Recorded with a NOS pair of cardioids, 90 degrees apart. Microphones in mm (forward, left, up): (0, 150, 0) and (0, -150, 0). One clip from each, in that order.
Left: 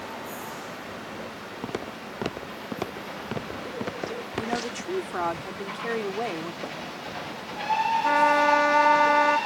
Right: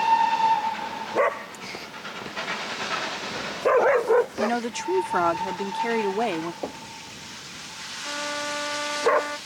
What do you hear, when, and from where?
1.6 s footsteps: 70° left
4.4 s a woman speaking: 35° right
6.6 s knocking: 40° right
8.0 s a trumpet: 65° left